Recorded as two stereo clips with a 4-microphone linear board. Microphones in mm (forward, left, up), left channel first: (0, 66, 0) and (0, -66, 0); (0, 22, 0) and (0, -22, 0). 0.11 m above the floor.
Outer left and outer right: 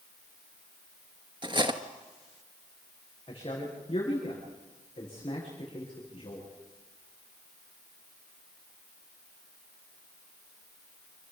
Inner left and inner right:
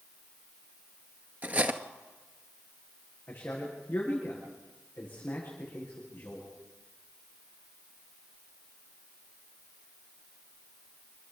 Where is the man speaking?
40° left (ahead or behind), 9.5 m.